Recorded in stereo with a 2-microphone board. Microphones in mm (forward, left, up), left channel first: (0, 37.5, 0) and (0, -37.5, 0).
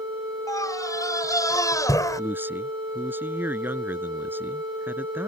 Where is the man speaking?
25° right (ahead or behind).